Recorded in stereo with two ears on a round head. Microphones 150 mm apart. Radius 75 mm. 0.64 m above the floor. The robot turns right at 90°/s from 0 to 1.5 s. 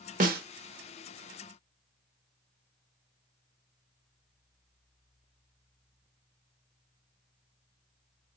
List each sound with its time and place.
0.2 s a snare drum: 50° right (ahead or behind), 0.8 m; by 0.4 s 65° right (ahead or behind), 0.8 m